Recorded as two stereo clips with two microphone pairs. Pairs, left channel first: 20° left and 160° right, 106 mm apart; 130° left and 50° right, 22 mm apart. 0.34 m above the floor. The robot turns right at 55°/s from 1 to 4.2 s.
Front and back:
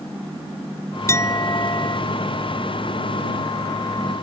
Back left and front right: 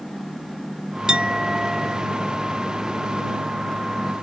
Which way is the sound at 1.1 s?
30° right.